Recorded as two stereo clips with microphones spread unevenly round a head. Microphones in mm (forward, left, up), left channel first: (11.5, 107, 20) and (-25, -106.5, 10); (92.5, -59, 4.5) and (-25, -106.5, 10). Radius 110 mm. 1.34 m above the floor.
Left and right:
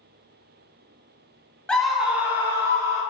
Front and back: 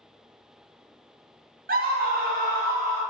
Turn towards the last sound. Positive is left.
turn(degrees=-175)